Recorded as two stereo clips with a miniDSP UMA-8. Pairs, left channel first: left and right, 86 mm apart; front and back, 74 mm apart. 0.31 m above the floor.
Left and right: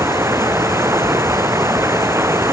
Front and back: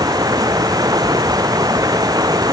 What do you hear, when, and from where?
0.0 s running water: 150° right